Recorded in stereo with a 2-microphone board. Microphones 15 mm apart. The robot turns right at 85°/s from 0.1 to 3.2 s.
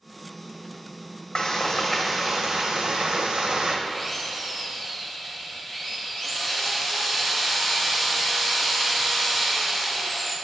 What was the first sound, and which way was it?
Frying, 120° left.